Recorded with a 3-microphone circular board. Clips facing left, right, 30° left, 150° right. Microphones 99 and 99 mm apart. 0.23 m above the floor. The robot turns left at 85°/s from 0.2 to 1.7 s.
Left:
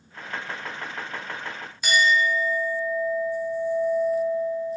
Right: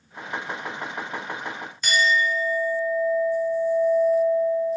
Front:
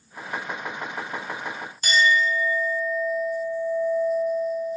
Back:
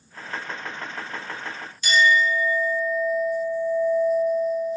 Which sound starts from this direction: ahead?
A clink, at 1.8 s.